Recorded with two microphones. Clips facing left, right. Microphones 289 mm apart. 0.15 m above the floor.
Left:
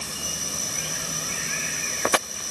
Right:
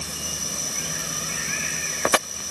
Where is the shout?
No shout in this recording.